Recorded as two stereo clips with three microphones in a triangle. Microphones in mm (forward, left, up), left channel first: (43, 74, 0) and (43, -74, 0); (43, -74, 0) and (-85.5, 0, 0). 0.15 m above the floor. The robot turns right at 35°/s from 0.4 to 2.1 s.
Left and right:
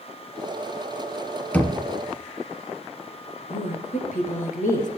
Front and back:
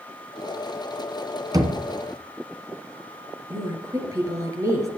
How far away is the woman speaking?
About 3 m.